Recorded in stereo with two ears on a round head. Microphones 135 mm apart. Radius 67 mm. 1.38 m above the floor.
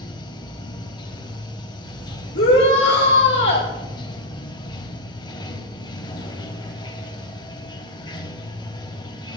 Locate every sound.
0.0 s running water: 30° left (ahead or behind), 1.3 m
2.4 s a shout: 85° left, 2 m